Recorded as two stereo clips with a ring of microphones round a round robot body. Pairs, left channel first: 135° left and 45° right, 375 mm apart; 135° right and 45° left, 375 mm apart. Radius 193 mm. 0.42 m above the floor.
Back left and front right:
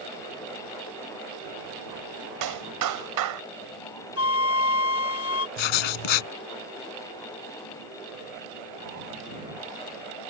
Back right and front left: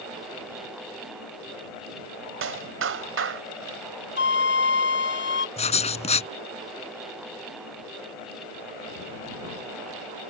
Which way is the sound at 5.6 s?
150° left.